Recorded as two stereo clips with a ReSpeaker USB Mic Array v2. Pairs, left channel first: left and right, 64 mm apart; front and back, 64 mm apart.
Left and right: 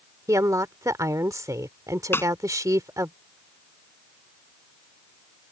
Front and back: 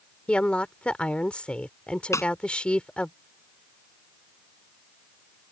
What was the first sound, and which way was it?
A woman speaking, 70° right.